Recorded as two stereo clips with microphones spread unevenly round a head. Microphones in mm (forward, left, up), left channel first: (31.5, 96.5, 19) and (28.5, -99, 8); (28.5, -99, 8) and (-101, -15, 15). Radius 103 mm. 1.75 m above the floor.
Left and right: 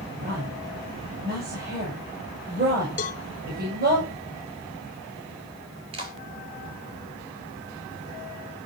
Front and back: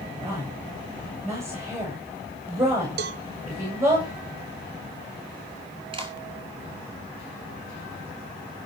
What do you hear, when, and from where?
0.2 s a woman speaking: 140° right, 7.5 m
3.0 s a cowbell: 140° left, 1.0 m
5.9 s a clap: 155° right, 4.5 m